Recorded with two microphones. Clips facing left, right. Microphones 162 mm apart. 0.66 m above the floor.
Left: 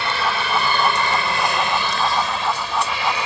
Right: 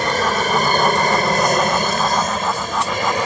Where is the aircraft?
45° right (ahead or behind).